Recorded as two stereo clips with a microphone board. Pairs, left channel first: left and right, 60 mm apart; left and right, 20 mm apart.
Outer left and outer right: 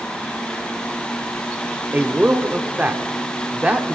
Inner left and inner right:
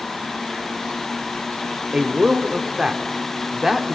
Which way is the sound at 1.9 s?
25° right (ahead or behind).